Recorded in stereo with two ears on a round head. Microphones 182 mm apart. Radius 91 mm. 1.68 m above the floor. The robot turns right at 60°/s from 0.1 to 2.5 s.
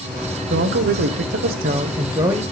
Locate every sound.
0.5 s a man speaking: 125° right, 0.6 m; by 2.4 s 10° right, 0.6 m